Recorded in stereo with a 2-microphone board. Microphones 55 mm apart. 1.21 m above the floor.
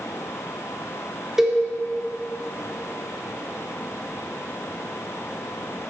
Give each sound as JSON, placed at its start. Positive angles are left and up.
{"t": 1.4, "sound": "a cowbell", "side_deg": -10, "distance_m": 2.5}